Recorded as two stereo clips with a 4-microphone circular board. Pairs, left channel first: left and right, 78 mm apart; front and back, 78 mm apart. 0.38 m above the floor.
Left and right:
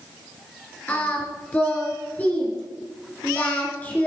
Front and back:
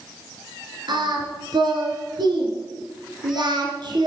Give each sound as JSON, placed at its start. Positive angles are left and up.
{"t": 0.9, "sound": "singing", "azimuth_deg": 160, "distance_m": 2.0}